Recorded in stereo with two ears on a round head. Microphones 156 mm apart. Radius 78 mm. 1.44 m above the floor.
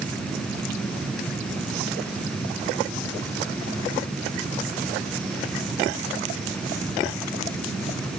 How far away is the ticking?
I don't hear ticking.